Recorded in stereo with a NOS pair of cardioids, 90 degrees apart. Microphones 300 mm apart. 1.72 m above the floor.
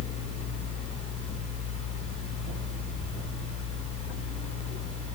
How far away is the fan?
About 1.8 m.